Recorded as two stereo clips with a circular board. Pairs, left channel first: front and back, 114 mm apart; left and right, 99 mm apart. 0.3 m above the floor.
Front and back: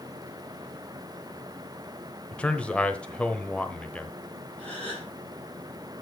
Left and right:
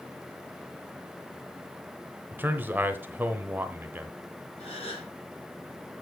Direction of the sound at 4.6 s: 75° left.